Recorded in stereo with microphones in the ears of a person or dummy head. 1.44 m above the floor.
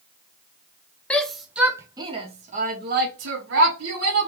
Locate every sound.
1.1 s a shout: 10° left (ahead or behind), 1.0 m; by 4.3 s 75° right (ahead or behind), 1.5 m